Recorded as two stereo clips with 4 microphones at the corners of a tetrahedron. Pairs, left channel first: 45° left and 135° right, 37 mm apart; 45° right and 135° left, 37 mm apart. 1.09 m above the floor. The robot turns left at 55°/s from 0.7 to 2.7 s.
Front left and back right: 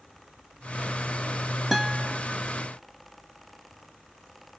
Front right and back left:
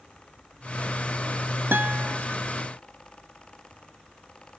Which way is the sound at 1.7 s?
135° left.